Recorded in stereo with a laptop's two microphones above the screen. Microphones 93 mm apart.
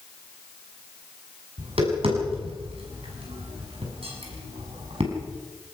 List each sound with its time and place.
1.6 s tapping: 75° right (ahead or behind), 7 m